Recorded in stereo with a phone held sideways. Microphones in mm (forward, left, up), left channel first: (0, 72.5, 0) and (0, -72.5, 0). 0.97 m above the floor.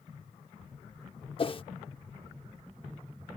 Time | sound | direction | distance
1.4 | a whoosh | 40° left (ahead or behind) | ?